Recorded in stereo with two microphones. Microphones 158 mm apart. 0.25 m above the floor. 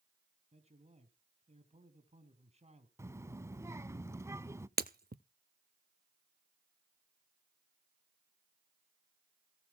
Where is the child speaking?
20° right (ahead or behind), 1.0 m.